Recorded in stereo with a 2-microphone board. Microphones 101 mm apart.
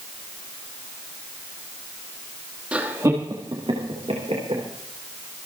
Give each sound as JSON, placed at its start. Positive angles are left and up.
{"t": 2.7, "sound": "laughter", "side_deg": -15, "distance_m": 1.7}